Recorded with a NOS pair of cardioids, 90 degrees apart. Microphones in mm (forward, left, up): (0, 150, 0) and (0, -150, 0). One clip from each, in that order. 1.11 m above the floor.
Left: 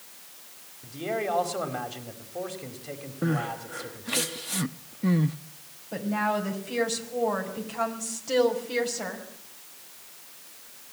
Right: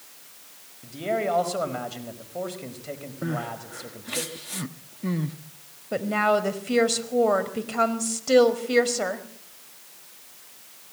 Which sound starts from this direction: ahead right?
A woman speaking, at 5.9 s.